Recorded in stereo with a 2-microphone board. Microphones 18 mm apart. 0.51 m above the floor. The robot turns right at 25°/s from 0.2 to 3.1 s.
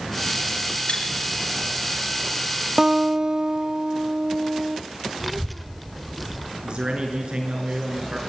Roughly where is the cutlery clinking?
Left.